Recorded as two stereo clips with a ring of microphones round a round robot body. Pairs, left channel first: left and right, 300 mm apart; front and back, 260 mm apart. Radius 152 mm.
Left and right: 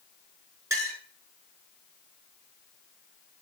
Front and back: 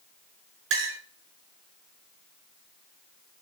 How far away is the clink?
About 6.5 m.